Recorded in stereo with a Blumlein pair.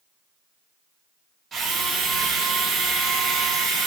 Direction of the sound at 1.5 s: 20° right.